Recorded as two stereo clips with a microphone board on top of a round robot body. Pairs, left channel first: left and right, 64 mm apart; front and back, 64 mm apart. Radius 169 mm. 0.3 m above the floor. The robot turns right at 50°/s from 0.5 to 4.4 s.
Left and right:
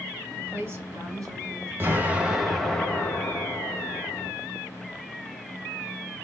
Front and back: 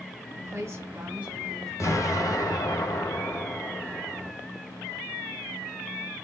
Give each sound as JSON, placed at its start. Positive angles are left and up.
{"t": 0.3, "sound": "a woman speaking", "azimuth_deg": -150, "distance_m": 3.0}
{"t": 1.8, "sound": "an explosion", "azimuth_deg": -35, "distance_m": 1.5}